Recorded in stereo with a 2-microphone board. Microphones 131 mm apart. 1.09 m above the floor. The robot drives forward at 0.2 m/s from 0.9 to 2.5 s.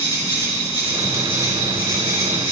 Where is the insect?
20° right (ahead or behind), 1.6 m; by 2.5 s 15° right (ahead or behind), 1.8 m.